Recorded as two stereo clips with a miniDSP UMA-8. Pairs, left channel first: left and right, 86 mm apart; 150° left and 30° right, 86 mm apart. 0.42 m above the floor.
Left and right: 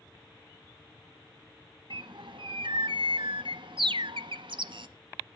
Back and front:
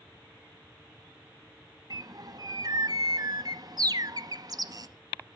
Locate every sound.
1.9 s a bird: 70° right, 0.7 m